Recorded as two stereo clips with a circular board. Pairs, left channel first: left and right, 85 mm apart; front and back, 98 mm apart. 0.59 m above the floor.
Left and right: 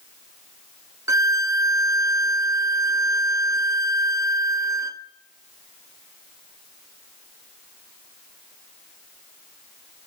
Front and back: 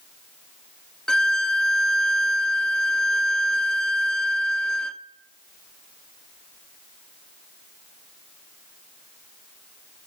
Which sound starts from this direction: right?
A violin, at 1.1 s.